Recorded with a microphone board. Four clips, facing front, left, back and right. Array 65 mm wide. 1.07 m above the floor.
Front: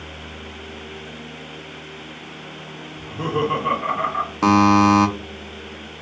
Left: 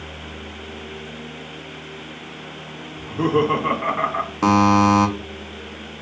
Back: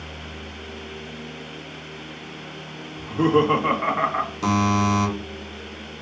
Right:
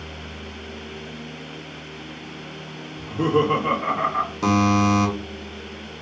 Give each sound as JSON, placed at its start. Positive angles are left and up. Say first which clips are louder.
{"t": 3.0, "sound": "laughter", "louder": "left 1 dB, back 5 dB", "azimuth_deg": 150, "distance_m": 1.2}
{"t": 4.4, "sound": "a buzzer", "louder": "left 5 dB, front 8 dB", "azimuth_deg": 35, "distance_m": 0.6}